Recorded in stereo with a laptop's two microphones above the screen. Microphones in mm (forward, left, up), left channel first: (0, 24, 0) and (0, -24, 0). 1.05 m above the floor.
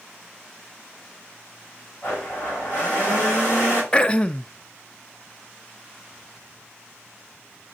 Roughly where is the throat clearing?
Left.